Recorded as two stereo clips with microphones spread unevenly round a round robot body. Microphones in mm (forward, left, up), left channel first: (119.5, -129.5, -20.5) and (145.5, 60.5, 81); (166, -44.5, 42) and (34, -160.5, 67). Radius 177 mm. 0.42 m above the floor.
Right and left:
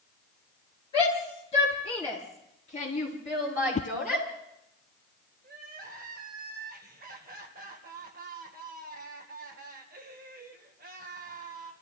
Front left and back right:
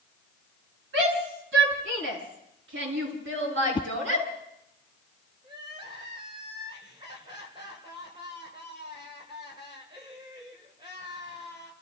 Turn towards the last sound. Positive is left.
turn(degrees=150)